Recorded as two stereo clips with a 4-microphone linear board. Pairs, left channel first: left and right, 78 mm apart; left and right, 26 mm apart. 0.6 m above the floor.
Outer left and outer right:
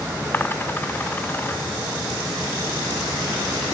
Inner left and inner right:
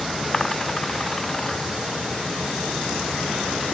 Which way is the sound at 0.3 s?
25° left (ahead or behind).